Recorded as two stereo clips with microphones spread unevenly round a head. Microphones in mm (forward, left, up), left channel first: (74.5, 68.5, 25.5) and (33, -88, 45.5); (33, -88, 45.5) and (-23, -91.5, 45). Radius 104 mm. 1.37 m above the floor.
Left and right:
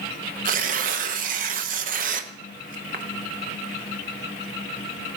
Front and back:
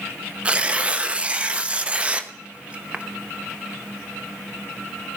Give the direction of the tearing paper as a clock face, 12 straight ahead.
4 o'clock.